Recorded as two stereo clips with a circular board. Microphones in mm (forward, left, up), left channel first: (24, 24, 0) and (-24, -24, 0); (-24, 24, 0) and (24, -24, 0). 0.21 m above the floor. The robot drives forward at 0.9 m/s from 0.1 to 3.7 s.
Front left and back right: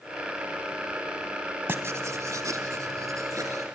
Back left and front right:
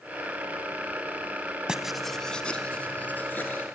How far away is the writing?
About 0.8 m.